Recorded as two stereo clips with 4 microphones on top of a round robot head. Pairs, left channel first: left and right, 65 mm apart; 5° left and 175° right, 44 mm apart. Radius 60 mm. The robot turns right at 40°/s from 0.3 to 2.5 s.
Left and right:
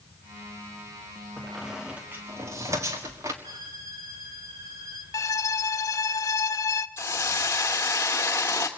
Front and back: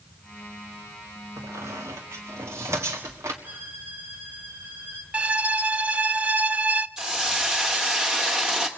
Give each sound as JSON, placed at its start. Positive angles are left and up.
{"t": 1.4, "sound": "a squeak", "azimuth_deg": 170, "distance_m": 1.7}
{"t": 3.4, "sound": "a violin", "azimuth_deg": -120, "distance_m": 3.5}
{"t": 5.1, "sound": "a violin", "azimuth_deg": 125, "distance_m": 0.7}
{"t": 7.0, "sound": "a hiss", "azimuth_deg": 125, "distance_m": 1.0}